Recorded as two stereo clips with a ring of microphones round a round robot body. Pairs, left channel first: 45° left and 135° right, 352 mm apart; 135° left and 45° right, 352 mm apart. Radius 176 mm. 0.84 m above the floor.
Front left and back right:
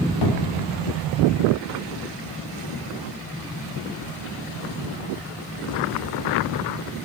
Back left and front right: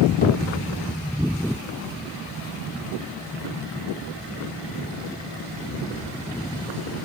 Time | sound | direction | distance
0.2 | a cupboard door | 70° left | 2 m